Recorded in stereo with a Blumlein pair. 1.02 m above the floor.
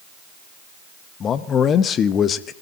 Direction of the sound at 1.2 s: 25° left.